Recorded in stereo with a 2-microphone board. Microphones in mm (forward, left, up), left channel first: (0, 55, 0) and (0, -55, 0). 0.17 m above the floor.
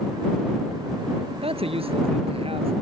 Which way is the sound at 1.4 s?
65° right (ahead or behind).